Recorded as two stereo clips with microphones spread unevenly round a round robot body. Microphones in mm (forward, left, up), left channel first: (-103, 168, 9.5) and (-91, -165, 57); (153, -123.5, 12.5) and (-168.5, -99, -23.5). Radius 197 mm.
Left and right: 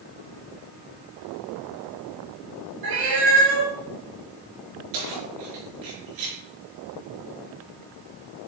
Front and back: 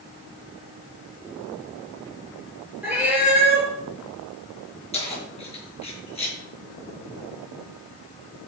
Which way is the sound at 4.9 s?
75° right.